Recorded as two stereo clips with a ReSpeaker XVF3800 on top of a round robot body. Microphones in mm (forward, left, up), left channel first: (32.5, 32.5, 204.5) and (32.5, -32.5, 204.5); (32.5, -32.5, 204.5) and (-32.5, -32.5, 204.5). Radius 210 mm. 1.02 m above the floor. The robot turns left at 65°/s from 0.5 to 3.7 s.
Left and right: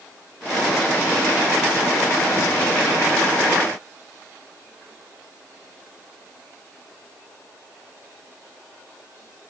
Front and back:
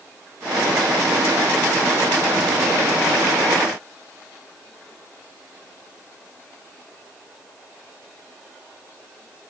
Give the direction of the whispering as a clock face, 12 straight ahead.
I don't hear whispering.